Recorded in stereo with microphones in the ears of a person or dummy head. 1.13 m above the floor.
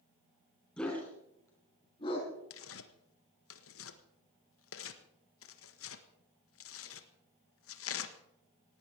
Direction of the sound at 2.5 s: 65° left (ahead or behind).